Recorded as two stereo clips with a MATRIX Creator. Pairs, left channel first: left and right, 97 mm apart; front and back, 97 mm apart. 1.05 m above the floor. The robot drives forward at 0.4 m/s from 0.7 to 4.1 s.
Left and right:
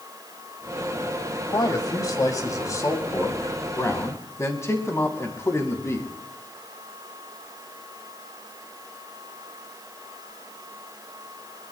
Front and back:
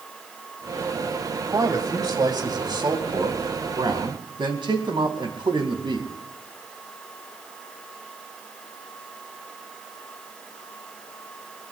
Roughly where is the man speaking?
Behind left.